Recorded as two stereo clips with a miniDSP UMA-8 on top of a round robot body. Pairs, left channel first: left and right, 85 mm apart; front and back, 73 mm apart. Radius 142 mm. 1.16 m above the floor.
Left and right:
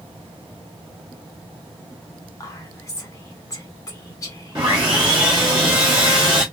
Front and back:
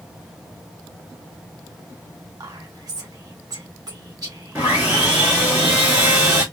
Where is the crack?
No crack in this recording.